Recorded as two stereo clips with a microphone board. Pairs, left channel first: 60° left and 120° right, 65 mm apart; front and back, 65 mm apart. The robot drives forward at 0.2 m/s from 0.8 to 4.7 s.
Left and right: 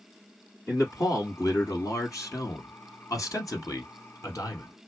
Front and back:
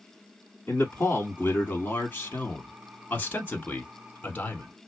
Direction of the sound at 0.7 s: 50° left.